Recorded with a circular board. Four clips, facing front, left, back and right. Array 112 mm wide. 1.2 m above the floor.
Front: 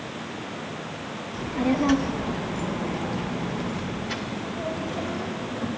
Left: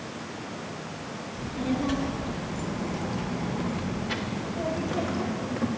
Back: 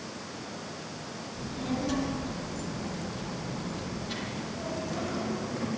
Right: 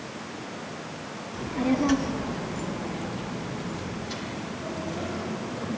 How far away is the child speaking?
About 1.3 m.